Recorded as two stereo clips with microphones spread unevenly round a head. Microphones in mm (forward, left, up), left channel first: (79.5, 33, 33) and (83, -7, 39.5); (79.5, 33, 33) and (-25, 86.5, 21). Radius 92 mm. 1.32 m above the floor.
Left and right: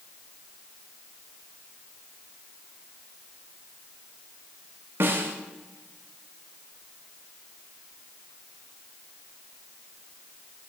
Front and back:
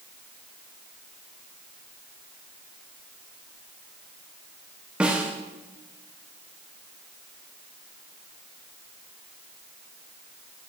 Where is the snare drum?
130° right, 1.0 m.